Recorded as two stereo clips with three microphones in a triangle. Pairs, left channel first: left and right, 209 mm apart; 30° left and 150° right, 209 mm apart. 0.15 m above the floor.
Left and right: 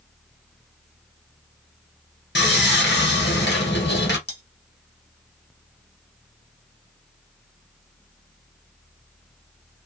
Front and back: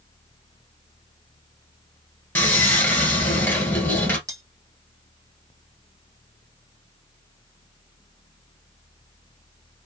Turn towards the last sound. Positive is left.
turn(degrees=140)